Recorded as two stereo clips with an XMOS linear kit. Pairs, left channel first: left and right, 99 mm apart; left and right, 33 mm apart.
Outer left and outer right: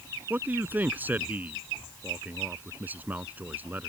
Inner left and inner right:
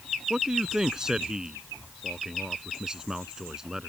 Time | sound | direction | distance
0.3 | a man speaking | 20° right (ahead or behind) | ?